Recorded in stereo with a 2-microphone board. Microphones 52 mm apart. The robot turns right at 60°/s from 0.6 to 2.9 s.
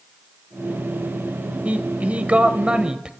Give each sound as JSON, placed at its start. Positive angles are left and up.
{"t": 1.6, "sound": "a man speaking", "side_deg": -25, "distance_m": 1.2}